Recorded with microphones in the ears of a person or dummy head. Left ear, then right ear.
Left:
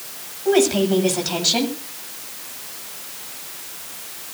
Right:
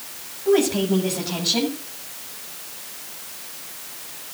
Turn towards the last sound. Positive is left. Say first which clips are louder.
# left 2 dB
turn(degrees=65)  # may be behind; listen again after turning